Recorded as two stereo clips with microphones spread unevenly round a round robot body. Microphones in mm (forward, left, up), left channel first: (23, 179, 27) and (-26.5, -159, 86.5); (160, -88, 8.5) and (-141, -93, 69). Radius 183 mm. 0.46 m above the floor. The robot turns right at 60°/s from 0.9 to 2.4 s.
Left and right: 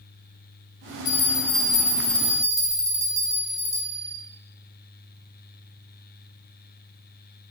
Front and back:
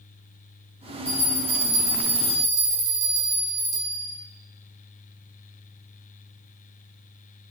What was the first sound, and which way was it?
A bell, 90° left.